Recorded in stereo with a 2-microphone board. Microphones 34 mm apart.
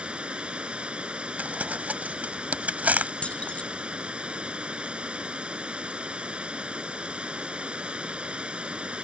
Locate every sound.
0.0 s running water: 35° right (ahead or behind)
1.4 s crumpling: 55° right (ahead or behind)
3.2 s keys jangling: 35° left (ahead or behind)